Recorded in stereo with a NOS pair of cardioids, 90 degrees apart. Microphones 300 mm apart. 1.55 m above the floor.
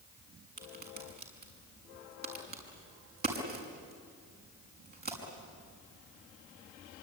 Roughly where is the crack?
Ahead right.